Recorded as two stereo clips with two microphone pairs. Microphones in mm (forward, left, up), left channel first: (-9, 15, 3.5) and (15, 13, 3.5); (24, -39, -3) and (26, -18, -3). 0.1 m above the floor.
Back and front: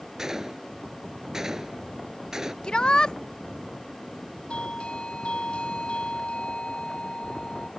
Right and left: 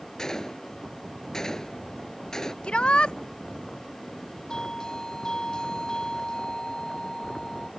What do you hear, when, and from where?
0.2 s a gunshot: 55° right
2.6 s a shout: 130° right
4.5 s a doorbell: 150° right